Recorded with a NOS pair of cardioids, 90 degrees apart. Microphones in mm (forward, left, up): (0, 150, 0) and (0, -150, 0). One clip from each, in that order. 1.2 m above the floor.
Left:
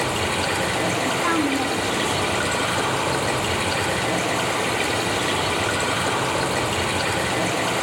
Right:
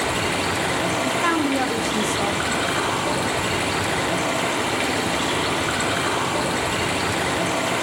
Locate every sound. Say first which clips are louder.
0.0 s running water: even; 15° right, 4.5 m
1.1 s a woman speaking: even; 40° right, 0.9 m